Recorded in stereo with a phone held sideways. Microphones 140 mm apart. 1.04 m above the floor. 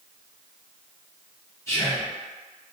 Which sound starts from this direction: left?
Whispering, at 1.7 s.